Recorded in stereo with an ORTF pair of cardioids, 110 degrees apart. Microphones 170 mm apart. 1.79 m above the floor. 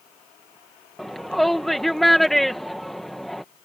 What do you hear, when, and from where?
1.0 s a shout: straight ahead